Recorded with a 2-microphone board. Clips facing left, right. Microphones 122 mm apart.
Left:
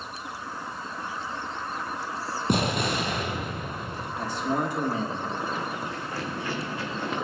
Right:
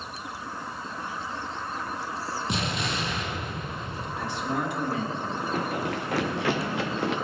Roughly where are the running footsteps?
Right.